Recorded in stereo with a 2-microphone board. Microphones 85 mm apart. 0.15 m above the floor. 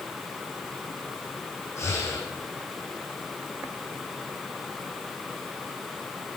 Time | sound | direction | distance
1.8 | breathing | 35° left (ahead or behind) | 7.5 m